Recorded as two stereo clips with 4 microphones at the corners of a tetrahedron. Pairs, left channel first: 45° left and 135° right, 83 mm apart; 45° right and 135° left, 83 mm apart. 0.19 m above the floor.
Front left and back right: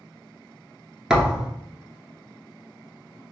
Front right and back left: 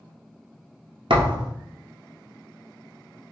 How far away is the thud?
About 1.1 m.